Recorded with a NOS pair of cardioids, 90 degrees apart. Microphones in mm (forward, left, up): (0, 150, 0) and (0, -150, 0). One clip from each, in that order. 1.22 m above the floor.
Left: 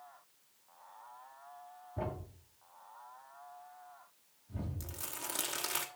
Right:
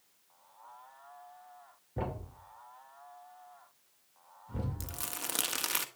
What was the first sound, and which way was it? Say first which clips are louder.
A thud: right 2 dB; 50° right.